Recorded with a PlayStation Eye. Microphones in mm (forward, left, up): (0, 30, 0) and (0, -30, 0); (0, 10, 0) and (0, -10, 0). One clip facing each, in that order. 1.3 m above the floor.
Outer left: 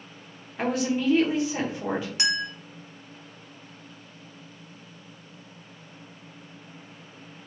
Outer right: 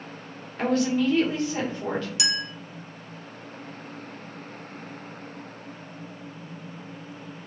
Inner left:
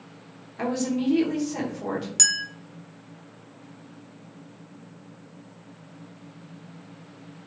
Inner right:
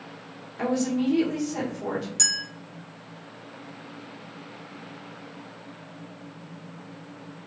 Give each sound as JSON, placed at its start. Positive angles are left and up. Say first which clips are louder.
{"t": 0.6, "sound": "a woman speaking", "louder": "outer right 3 dB, inner right 1 dB", "side_deg": 15, "distance_m": 1.1}
{"t": 2.2, "sound": "a clink", "louder": "outer left 2 dB, inner left 2 dB", "side_deg": 40, "distance_m": 0.6}